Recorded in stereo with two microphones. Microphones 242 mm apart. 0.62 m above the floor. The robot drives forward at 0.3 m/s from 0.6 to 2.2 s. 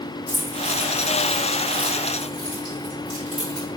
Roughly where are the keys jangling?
Centre.